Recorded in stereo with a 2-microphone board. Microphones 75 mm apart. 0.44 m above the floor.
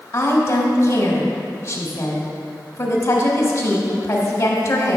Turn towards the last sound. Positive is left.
turn(degrees=35)  # may be behind; listen again after turning